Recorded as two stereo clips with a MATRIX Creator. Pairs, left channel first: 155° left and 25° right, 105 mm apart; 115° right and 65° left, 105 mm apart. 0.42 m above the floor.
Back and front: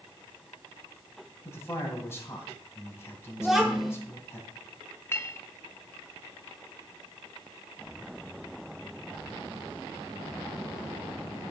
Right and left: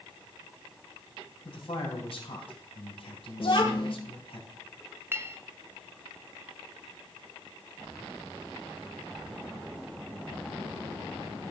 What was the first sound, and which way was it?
A man speaking, 140° right.